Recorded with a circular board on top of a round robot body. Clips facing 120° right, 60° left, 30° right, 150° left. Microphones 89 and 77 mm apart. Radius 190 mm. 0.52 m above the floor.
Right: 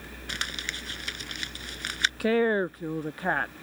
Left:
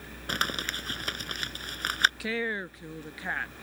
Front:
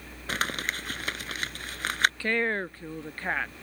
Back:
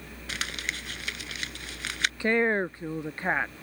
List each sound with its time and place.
0.3 s crumpling: 15° left
2.2 s a woman speaking: 145° right